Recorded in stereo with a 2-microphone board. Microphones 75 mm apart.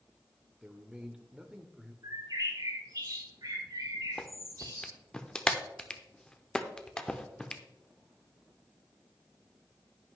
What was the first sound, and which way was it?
A man speaking, 10° right (ahead or behind).